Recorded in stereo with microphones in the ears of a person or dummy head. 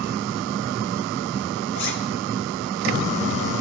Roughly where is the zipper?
Left.